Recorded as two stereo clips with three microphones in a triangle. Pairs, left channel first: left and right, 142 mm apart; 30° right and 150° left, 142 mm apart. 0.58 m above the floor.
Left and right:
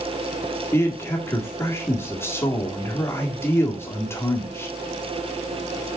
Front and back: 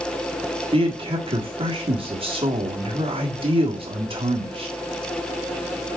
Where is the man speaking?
150° left, 1.6 m.